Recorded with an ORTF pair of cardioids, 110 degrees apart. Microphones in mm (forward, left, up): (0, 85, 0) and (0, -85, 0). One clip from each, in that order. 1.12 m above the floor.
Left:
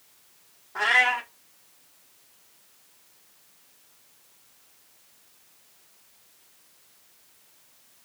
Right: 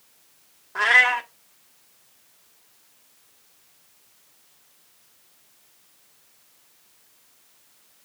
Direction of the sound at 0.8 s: 20° right.